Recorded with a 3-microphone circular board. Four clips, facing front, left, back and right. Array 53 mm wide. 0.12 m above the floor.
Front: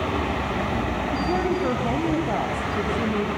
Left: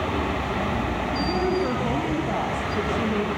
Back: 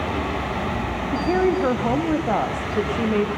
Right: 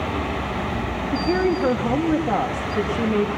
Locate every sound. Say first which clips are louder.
1.1 s a woman speaking: right 5 dB, back 6 dB; 150° right, 7 m; by 3.3 s 170° right, 8 m